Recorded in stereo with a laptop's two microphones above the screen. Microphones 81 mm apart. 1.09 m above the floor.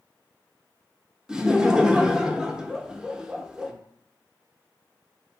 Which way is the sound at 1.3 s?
10° right (ahead or behind).